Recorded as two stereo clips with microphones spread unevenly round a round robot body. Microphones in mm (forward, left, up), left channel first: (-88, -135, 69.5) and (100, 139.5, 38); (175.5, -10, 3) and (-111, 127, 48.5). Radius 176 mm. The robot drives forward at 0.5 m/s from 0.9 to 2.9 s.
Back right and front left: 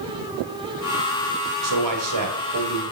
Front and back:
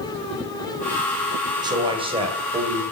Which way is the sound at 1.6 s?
75° left.